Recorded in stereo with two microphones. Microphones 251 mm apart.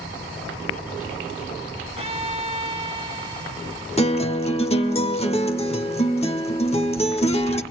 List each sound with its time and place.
2.0 s a violin: 25° right (ahead or behind), 1.0 m
4.0 s a guitar: 25° left (ahead or behind), 0.9 m